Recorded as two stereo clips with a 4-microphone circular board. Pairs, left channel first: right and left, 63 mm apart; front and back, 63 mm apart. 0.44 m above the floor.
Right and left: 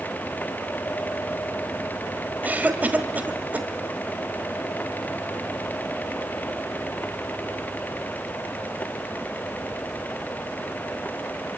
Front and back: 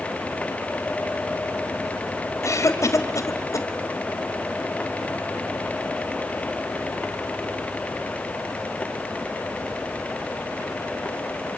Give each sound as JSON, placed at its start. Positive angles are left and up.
{"t": 2.4, "sound": "a cough", "azimuth_deg": 30, "distance_m": 2.0}